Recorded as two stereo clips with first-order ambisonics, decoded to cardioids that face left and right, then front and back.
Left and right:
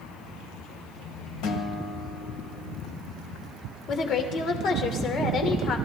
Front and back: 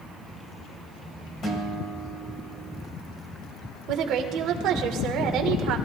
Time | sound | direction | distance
1.4 | a guitar | 70° left | 1.7 m
3.9 | a woman speaking | 140° left | 1.9 m